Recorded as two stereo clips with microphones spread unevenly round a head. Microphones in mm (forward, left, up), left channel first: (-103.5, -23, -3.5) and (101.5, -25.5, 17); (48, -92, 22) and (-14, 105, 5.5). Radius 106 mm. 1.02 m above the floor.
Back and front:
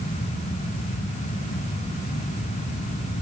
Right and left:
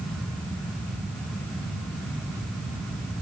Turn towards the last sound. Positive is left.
No sound to turn to.